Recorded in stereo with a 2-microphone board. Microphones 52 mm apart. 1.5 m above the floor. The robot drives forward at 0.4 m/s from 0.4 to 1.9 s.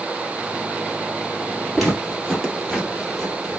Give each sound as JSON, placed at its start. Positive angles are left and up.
{"t": 1.8, "sound": "footsteps", "side_deg": 0, "distance_m": 2.0}